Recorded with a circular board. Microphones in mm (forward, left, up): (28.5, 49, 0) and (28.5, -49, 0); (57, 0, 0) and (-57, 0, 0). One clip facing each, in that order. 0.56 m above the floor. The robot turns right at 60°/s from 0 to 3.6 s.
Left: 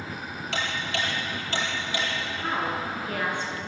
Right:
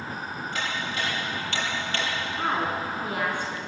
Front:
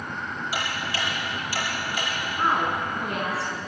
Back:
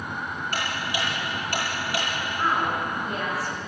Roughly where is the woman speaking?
Right.